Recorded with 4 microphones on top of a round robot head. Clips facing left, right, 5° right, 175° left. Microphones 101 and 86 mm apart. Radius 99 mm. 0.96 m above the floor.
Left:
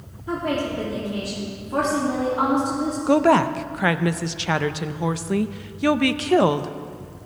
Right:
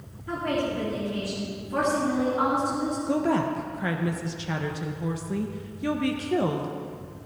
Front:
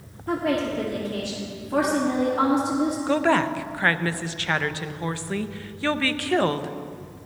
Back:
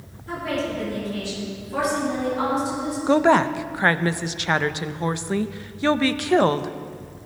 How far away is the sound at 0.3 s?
About 2.5 m.